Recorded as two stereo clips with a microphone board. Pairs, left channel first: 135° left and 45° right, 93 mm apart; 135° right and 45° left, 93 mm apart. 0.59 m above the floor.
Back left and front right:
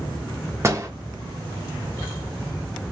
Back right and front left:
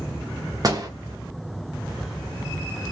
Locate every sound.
0.6 s a door slam: 10° left, 1.0 m